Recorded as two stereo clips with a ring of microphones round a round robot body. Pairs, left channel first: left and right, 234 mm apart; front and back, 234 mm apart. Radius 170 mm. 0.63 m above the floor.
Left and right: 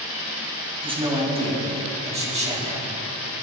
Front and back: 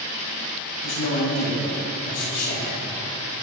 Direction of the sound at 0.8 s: 25° right.